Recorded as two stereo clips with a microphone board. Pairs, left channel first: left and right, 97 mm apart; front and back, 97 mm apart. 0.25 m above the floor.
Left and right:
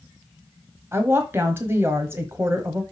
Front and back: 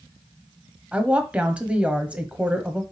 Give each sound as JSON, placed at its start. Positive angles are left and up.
{"t": 0.9, "sound": "a woman speaking", "azimuth_deg": -115, "distance_m": 1.1}